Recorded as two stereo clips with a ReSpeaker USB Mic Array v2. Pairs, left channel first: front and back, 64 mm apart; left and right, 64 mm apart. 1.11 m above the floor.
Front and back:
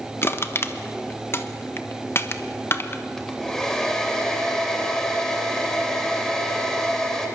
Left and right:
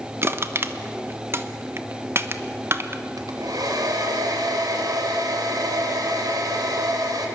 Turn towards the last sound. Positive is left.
turn(degrees=-80)